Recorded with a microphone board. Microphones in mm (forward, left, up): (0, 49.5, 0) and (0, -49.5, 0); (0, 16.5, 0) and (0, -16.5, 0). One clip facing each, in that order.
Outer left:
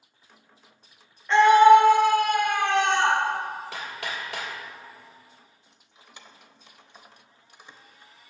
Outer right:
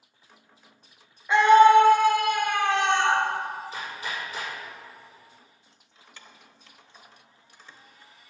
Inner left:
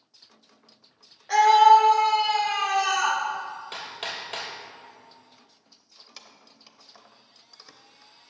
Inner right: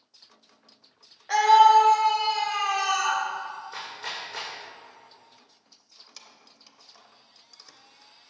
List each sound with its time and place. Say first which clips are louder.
1.3 s a scream: outer left 1 dB, inner left 1 dB; 10° right (ahead or behind), 1.3 m; by 3.2 s 65° left (ahead or behind), 2.5 m
3.7 s hammering: even, inner left 1 dB; 75° left (ahead or behind), 3 m
5.7 s keys jangling: outer left 2 dB, inner left 2 dB; 20° left (ahead or behind), 0.7 m